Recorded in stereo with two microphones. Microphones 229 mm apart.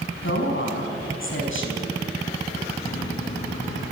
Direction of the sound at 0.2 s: 65° left (ahead or behind).